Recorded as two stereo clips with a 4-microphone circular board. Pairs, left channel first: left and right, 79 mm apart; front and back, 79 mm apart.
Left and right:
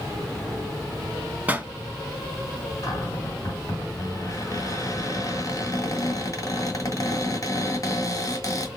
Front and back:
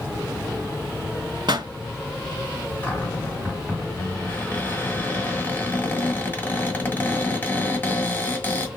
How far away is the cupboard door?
About 1.5 m.